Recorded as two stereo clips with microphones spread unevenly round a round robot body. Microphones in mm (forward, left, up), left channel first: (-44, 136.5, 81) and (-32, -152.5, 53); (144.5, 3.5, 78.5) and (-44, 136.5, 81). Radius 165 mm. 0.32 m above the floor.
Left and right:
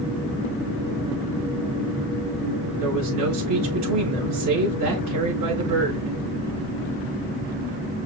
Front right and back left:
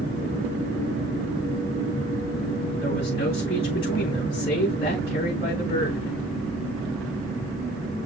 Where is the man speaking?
105° right, 4.5 m.